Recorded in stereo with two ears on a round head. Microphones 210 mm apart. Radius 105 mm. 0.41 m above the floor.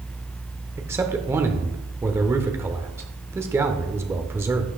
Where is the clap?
No clap in this recording.